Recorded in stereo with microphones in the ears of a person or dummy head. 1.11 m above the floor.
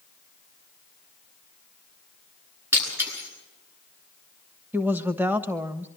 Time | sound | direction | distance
2.7 | breaking glass | 5° right (ahead or behind) | 9 m
4.7 | a woman speaking | 15° right (ahead or behind) | 1.1 m